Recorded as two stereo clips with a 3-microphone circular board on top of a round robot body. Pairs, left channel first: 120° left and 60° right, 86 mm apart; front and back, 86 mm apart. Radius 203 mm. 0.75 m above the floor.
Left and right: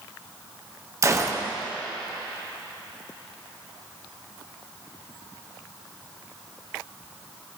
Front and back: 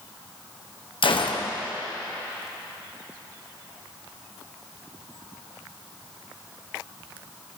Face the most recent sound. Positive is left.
turn(degrees=-5)